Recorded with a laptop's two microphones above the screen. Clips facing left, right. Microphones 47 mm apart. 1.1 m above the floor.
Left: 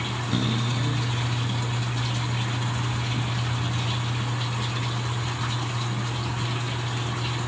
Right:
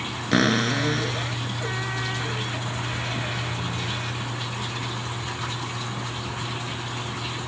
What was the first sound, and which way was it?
A cupboard door, 80° right.